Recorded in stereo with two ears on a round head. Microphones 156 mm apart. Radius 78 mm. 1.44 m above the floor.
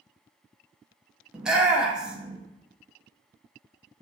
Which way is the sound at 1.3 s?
5° right (ahead or behind).